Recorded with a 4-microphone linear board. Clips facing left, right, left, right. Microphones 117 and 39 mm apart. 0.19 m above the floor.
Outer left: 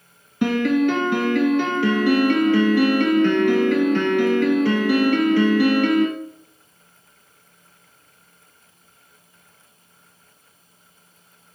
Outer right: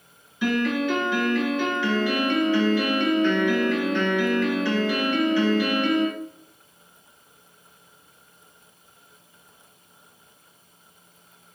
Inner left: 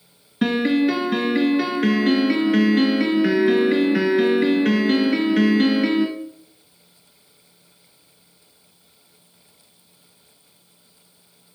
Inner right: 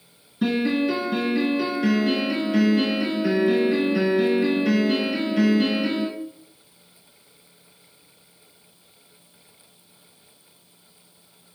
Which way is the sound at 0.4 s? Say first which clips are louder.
Outer left 5 dB, inner left 3 dB; 60° left (ahead or behind).